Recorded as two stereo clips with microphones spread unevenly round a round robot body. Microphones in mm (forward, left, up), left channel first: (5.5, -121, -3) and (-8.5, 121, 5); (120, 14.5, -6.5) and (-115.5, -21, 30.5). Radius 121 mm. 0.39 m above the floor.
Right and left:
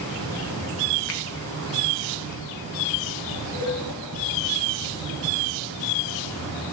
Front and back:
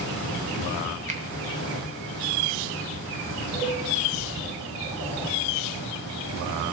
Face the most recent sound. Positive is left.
turn(degrees=-90)